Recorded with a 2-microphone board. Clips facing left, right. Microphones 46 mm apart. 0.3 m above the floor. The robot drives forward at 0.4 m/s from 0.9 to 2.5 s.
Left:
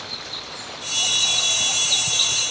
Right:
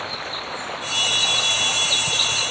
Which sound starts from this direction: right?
Running water, at 0.0 s.